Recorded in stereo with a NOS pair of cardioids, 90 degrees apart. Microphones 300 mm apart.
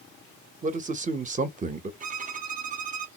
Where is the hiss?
No hiss in this recording.